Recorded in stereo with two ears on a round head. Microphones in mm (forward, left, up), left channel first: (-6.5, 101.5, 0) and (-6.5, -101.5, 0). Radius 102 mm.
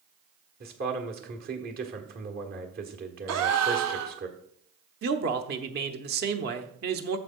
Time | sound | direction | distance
0.6 | a man speaking | 45° right (ahead or behind) | 1.5 m
3.3 | a gasp | 75° right (ahead or behind) | 1.0 m
5.0 | a man speaking | 45° right (ahead or behind) | 1.0 m